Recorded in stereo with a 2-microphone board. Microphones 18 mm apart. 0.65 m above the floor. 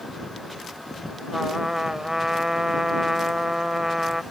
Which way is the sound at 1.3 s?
35° right (ahead or behind).